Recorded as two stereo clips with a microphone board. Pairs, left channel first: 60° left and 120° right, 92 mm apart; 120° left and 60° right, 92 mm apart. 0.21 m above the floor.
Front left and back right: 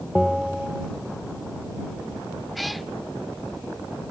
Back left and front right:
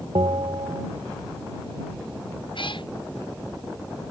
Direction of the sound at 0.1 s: 35° right.